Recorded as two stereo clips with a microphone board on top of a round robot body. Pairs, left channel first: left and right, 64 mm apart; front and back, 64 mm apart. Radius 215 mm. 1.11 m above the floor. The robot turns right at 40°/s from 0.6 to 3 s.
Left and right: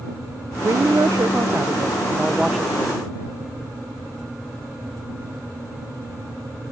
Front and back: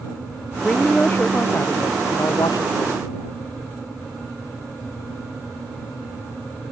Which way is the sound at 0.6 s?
80° right.